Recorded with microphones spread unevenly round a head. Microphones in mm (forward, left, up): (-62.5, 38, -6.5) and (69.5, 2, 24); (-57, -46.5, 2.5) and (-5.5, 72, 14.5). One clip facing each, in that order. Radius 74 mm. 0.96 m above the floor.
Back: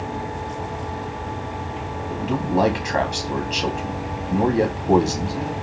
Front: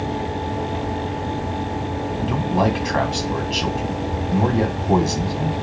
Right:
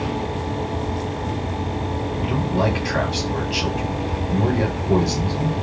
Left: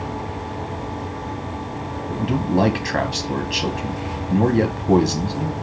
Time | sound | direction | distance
2.1 | a man speaking | 95° left | 1.9 m